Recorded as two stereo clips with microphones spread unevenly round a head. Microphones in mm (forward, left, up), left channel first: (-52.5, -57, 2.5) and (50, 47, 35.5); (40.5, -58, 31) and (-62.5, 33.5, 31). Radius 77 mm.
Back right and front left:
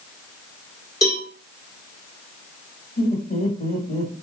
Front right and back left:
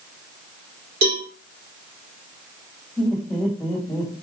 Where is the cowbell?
155° left, 2 m.